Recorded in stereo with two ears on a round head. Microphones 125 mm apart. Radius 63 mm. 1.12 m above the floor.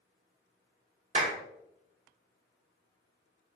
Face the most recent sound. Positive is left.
turn(degrees=-40)  # may be behind; listen again after turning